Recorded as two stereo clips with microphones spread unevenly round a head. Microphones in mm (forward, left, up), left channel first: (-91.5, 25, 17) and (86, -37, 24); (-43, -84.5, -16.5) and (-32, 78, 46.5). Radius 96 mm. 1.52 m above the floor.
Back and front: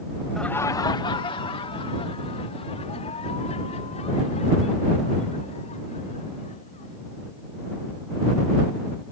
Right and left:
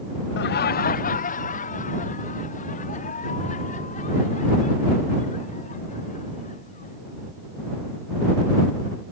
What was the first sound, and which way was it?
Laughter, 110° right.